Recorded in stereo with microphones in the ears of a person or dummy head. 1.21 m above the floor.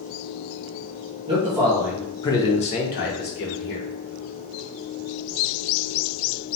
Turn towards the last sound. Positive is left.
turn(degrees=55)  # may be behind; listen again after turning